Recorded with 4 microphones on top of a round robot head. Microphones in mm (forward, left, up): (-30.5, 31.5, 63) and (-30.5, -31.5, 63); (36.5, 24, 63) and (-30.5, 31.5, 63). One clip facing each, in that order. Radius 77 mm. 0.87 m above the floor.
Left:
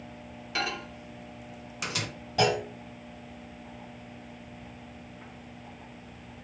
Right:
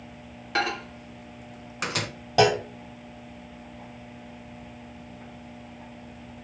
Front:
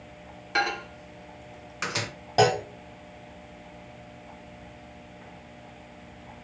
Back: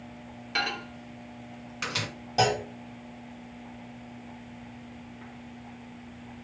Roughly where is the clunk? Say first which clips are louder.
Right 5 dB, front 4 dB; ahead right.